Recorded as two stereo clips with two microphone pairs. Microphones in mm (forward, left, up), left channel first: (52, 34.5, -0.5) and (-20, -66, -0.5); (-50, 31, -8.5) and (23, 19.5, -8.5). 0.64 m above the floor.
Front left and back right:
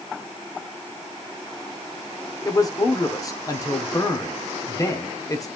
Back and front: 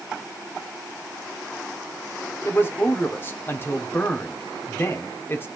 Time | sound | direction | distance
2.5 | a man speaking | 115° left | 1.4 m